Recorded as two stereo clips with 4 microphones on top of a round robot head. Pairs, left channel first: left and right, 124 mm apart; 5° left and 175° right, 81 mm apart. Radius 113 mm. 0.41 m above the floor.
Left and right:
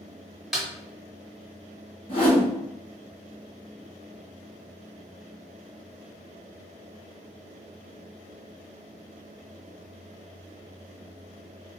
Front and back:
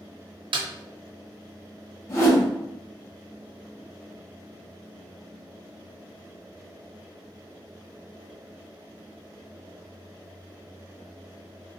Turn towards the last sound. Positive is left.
turn(degrees=55)